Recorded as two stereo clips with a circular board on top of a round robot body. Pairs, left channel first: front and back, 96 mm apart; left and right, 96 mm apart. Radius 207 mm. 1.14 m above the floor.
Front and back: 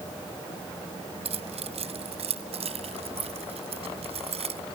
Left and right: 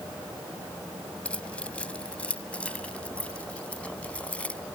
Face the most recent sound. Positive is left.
turn(degrees=165)